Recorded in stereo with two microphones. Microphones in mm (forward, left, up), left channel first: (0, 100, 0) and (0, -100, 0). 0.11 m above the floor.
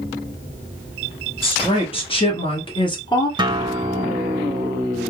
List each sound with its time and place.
1.4 s a woman speaking: 25° left (ahead or behind), 1.9 m; by 3.3 s 20° left (ahead or behind), 1.3 m
3.4 s a guitar: 25° right (ahead or behind), 0.5 m